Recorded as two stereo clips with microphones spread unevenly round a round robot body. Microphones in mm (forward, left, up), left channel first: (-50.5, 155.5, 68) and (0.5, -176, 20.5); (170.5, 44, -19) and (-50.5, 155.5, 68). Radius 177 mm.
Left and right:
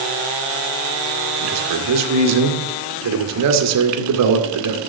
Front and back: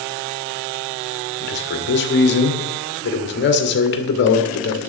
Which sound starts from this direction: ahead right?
A man speaking, at 1.4 s.